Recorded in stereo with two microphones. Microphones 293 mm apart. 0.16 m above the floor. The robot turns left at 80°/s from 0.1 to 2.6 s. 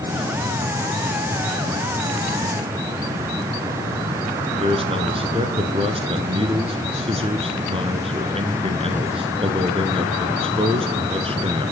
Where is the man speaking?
20° right (ahead or behind), 2 m.